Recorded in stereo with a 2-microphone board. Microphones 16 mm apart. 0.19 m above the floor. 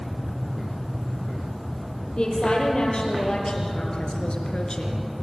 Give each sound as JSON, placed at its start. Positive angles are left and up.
{"t": 2.2, "sound": "a woman speaking", "side_deg": 65, "distance_m": 6.5}